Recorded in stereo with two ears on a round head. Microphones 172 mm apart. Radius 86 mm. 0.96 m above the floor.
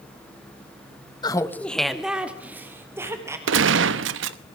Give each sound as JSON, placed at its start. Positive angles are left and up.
{"t": 1.2, "sound": "laughter", "side_deg": 25, "distance_m": 1.2}
{"t": 3.5, "sound": "a gunshot", "side_deg": -75, "distance_m": 1.0}